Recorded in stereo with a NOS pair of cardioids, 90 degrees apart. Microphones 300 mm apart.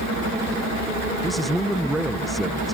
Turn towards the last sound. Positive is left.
turn(degrees=0)